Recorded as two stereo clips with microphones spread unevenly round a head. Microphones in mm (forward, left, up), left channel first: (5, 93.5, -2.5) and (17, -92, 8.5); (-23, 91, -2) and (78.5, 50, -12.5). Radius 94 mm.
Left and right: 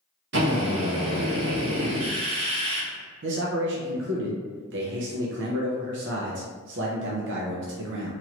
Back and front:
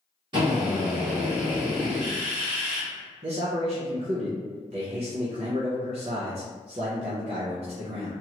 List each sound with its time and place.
0.3 s a drill: 80° right, 1.1 m
3.2 s a man speaking: 65° right, 0.7 m